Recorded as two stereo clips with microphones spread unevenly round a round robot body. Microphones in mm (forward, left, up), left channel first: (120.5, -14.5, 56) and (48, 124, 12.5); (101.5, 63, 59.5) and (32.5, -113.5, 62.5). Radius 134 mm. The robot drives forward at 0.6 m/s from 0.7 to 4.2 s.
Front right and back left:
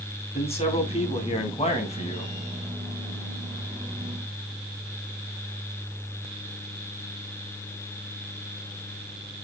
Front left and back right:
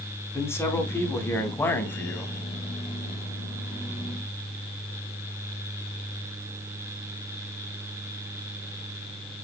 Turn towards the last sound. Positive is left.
turn(degrees=-20)